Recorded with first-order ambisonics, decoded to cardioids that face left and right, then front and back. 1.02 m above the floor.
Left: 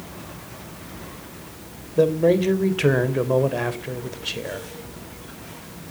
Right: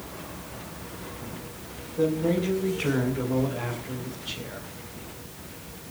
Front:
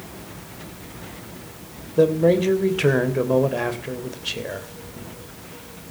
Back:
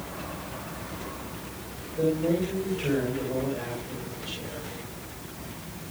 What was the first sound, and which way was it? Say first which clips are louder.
A man speaking: left 7 dB, front 9 dB; 45° left.